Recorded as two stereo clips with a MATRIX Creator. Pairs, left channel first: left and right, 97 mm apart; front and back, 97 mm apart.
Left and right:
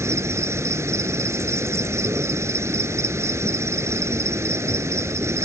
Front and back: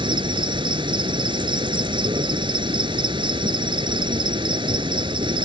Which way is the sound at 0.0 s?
150° right.